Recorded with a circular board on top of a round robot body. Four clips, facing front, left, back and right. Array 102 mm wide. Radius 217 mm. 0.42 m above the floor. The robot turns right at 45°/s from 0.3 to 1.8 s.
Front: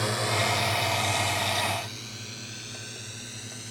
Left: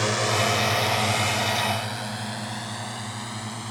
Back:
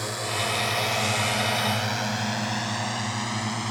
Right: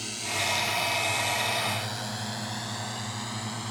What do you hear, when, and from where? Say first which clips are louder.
0.0 s a drone: left 10 dB, front 2 dB; 80° left; by 3.7 s 175° left